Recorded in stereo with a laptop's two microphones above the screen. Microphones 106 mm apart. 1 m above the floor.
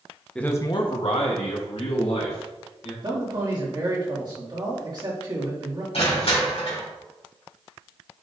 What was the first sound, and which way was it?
A man speaking, 10° left (ahead or behind).